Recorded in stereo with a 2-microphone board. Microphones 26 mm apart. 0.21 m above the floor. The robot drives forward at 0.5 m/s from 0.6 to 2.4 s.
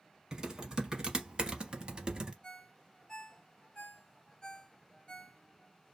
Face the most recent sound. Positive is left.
turn(degrees=25)  # may be behind; listen again after turning